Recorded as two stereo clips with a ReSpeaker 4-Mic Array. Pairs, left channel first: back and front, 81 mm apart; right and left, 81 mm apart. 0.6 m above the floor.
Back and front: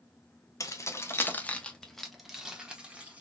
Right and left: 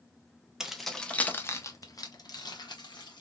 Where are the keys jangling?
170° left, 0.7 m; by 3.2 s 75° right, 1.4 m.